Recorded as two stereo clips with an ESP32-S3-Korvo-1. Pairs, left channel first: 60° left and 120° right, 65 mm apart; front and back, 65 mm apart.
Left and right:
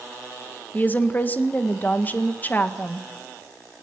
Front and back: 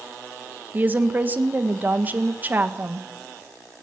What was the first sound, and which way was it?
A woman speaking, 120° left.